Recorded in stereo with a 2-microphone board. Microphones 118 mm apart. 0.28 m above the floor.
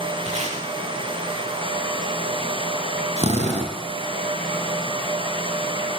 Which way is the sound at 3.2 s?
70° right (ahead or behind).